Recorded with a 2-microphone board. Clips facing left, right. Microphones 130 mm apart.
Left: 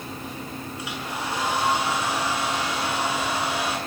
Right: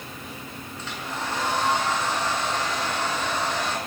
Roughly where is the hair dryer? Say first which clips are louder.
Right 1 dB; centre.